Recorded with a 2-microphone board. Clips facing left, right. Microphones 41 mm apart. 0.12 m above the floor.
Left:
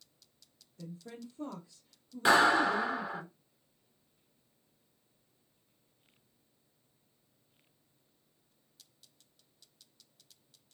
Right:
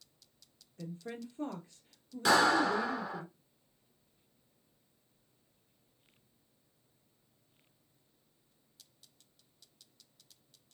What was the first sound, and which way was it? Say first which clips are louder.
A woman speaking: right 3 dB; 50° right (ahead or behind).